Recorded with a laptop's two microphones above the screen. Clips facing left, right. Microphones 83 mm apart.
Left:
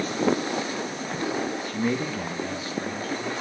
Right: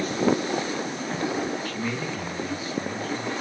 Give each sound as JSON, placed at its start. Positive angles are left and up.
{"t": 1.6, "sound": "a man speaking", "side_deg": 25, "distance_m": 0.7}